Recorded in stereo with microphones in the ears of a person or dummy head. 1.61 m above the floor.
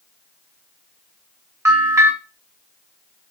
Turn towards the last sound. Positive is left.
turn(degrees=-10)  # may be behind; listen again after turning